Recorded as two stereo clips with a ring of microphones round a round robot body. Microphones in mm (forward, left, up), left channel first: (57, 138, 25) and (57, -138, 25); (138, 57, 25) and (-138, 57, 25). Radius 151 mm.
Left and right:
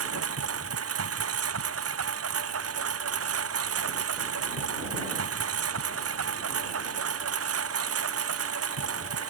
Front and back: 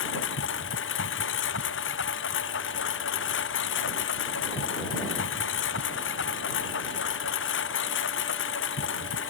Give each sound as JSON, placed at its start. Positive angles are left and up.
{"t": 0.0, "sound": "a lawn mower", "azimuth_deg": -55}